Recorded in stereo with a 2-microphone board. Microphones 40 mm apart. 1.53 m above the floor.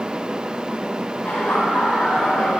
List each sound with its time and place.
1.2 s laughter: 25° left (ahead or behind), 8.5 m